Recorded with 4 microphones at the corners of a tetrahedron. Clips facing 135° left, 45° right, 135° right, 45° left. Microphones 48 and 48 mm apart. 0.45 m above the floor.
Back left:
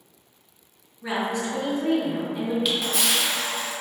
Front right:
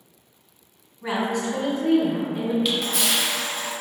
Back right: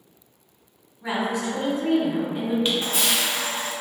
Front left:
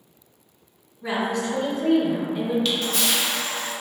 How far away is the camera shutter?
About 0.7 m.